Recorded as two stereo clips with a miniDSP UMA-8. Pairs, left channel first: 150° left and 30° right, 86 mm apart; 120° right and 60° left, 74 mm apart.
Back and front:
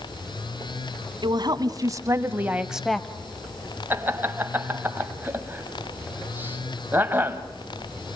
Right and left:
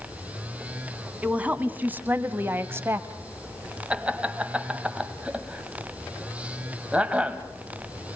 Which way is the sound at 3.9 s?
5° left.